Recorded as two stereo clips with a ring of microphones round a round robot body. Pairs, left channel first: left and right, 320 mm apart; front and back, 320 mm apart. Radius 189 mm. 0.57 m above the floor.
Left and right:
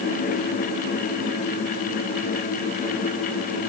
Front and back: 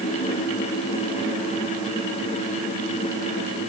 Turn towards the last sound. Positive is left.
No sound to turn to.